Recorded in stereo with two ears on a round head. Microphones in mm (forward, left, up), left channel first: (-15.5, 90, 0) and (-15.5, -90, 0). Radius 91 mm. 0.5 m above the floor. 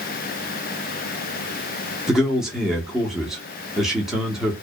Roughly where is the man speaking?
Centre.